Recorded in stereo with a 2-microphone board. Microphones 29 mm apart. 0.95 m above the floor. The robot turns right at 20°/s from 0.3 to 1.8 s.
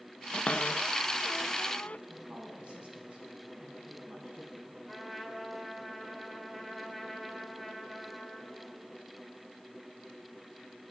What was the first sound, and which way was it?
A cupboard door, 45° left (ahead or behind).